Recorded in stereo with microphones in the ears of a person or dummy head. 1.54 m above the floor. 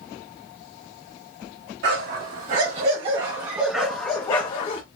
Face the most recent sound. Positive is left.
turn(degrees=35)  # may be behind; listen again after turning